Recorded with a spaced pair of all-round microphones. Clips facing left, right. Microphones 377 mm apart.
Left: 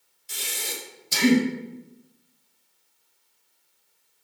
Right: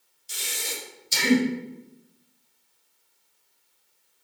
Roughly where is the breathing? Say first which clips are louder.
Left 1 dB; left.